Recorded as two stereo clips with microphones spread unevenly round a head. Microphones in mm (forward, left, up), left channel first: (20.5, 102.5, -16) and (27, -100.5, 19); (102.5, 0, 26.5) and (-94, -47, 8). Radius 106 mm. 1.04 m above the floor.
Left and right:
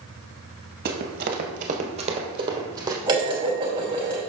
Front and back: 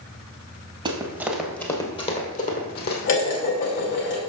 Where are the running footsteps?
100° right, 1.6 m; by 3.0 s 20° right, 2.5 m.